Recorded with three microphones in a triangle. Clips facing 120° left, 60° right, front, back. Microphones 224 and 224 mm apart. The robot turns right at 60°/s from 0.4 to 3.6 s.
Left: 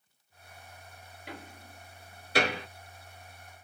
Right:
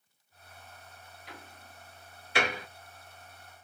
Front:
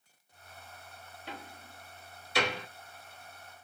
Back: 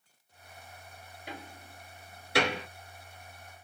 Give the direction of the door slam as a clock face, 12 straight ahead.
9 o'clock.